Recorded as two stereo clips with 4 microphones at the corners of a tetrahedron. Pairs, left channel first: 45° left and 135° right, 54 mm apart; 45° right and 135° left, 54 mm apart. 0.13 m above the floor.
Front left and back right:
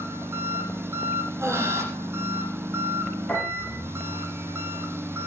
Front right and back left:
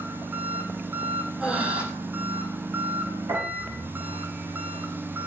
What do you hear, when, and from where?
0.0 s an engine running: 175° right, 1.7 m
1.4 s breathing: 155° right, 5 m
3.3 s a piano: 115° left, 6 m